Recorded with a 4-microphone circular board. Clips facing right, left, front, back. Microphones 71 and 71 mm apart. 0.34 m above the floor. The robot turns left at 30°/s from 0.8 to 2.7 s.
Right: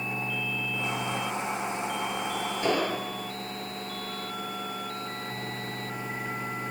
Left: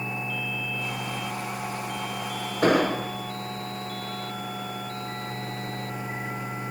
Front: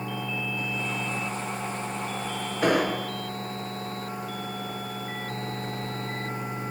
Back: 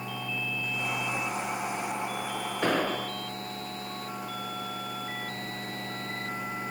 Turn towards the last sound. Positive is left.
turn(degrees=85)